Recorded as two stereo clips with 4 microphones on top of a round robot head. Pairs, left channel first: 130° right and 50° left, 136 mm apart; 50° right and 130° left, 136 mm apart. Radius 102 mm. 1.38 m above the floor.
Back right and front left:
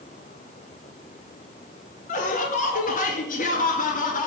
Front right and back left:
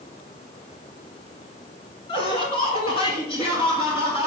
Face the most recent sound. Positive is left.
turn(degrees=-105)